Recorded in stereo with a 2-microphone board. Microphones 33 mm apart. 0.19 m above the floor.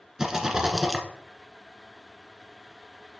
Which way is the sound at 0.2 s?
20° right (ahead or behind).